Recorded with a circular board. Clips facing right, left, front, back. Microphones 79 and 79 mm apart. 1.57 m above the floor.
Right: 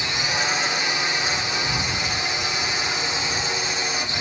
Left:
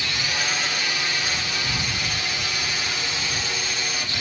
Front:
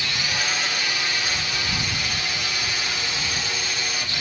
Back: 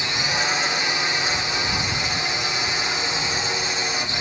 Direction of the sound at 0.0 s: 140° right.